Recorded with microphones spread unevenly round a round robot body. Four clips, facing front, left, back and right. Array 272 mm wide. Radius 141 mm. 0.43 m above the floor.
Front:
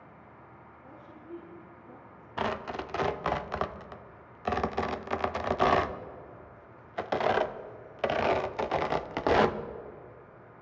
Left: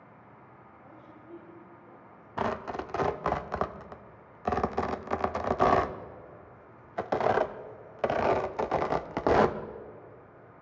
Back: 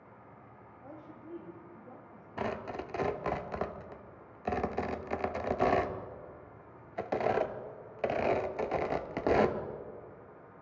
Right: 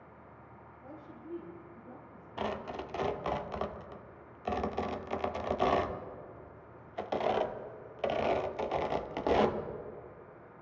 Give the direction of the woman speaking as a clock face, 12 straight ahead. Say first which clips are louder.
Right 4 dB, back 1 dB; 5 o'clock.